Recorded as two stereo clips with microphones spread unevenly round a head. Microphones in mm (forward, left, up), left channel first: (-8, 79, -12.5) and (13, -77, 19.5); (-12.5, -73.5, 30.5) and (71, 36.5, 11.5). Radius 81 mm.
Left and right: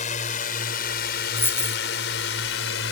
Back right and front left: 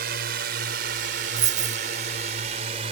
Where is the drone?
55° left; by 2.9 s 105° left.